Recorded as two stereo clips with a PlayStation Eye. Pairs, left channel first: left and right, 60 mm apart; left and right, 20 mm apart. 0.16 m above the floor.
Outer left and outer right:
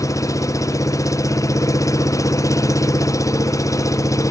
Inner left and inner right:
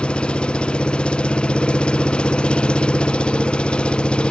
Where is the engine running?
70° left (ahead or behind).